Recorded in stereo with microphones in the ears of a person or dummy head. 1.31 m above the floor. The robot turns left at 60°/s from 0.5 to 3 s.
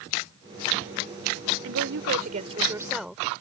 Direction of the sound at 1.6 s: 90° right.